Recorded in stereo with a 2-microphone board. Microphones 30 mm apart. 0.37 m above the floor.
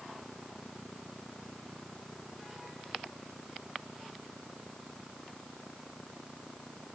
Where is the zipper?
No zipper in this recording.